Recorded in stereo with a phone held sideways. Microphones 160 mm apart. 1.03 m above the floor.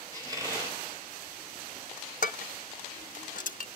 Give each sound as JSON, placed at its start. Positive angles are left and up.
{"t": 0.1, "sound": "a squeak", "side_deg": -20, "distance_m": 4.0}
{"t": 2.2, "sound": "dishes clattering", "side_deg": 55, "distance_m": 0.7}